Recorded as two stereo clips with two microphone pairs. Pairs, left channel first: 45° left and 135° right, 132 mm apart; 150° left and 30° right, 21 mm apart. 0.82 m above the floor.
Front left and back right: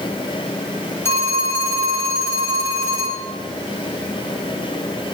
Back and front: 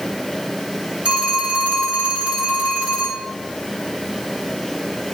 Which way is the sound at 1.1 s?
25° right.